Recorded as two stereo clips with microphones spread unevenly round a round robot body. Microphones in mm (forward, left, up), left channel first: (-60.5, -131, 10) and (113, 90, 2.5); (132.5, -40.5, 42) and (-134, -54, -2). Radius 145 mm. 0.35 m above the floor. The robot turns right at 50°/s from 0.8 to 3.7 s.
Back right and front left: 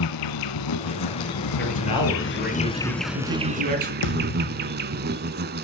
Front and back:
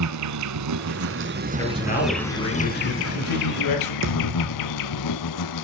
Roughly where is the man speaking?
Right.